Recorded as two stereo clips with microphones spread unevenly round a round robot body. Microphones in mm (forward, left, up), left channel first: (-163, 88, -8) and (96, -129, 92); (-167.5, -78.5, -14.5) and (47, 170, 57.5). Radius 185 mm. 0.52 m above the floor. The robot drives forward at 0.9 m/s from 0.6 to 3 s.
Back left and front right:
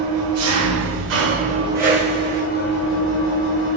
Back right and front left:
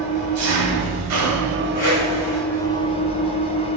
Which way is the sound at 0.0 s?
10° left.